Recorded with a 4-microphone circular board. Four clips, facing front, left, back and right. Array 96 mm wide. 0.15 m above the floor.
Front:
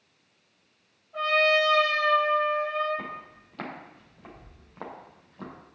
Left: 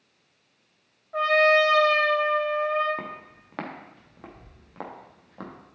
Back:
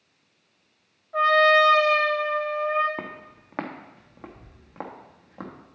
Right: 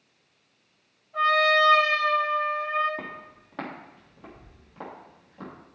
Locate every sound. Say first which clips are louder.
1.1 s a trumpet: left 2 dB, back 6 dB; 125° left, 2.5 m
3.0 s footsteps: left 2 dB, back 1 dB; 170° left, 2 m; by 5.5 s 150° left, 3.5 m